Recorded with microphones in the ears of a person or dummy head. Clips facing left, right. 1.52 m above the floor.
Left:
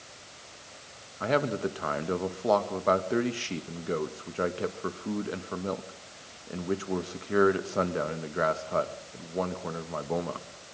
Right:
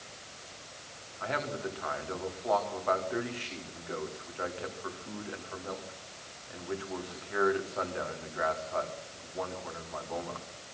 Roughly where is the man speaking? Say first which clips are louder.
Left 8 dB; left.